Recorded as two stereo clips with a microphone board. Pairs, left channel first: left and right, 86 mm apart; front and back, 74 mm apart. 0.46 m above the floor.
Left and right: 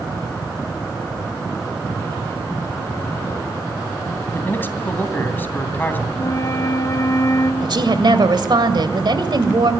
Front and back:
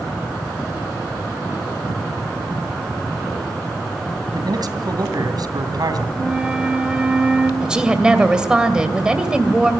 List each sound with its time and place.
4.3 s a man speaking: 155° left, 2.5 m
6.1 s a flute: 110° left, 1.8 m
7.6 s a woman speaking: 105° right, 2 m